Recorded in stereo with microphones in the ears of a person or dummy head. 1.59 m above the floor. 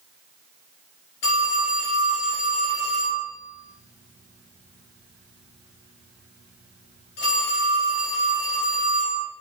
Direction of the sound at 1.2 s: 45° left (ahead or behind).